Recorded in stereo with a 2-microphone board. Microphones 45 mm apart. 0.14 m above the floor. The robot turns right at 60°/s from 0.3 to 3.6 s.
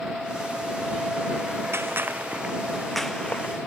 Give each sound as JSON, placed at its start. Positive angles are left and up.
{"t": 1.7, "sound": "a gunshot", "side_deg": -70}